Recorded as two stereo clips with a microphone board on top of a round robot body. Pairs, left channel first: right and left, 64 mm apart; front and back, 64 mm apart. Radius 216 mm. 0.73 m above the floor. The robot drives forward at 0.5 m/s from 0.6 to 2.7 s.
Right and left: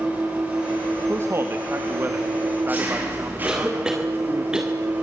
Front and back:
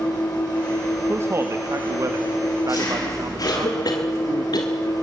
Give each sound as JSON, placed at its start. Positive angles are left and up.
{"t": 0.0, "sound": "an engine running", "azimuth_deg": 25, "distance_m": 8.0}
{"t": 1.1, "sound": "a man speaking", "azimuth_deg": 135, "distance_m": 1.9}
{"t": 3.5, "sound": "a cough", "azimuth_deg": 10, "distance_m": 2.5}